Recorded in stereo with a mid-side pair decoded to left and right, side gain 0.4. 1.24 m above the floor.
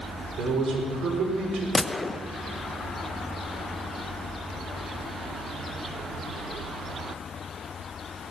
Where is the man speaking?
65° right, 4.5 m.